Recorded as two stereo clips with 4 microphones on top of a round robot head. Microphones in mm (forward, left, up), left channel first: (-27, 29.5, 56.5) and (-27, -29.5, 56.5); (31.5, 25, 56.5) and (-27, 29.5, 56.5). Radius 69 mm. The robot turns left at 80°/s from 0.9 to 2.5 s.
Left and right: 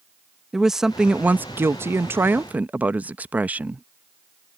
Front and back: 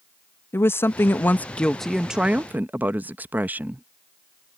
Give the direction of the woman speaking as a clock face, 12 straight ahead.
12 o'clock.